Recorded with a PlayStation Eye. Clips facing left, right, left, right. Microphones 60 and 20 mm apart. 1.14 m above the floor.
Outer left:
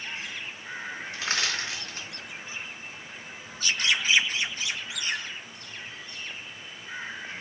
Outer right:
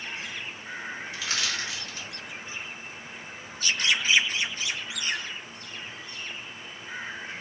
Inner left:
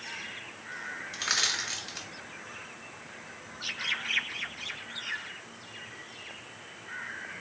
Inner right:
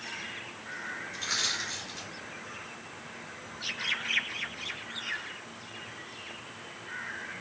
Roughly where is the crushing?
Left.